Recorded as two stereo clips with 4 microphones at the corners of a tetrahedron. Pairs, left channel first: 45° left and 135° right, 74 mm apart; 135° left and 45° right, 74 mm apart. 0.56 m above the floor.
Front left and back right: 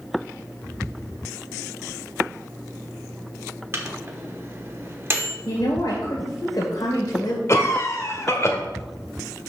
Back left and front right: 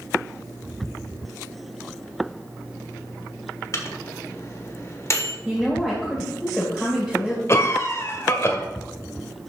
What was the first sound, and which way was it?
A microwave, 175° left.